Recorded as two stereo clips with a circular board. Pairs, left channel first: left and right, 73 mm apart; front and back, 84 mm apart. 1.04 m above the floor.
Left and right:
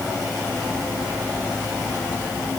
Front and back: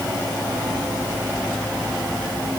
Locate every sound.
Only background noise.